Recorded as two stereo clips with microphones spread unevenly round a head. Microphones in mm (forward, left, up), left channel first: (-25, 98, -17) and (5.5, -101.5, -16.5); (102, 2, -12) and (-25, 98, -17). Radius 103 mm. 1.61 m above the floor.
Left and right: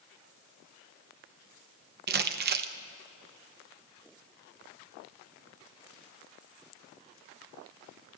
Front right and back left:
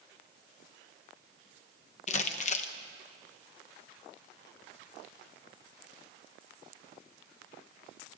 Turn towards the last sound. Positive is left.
turn(degrees=-65)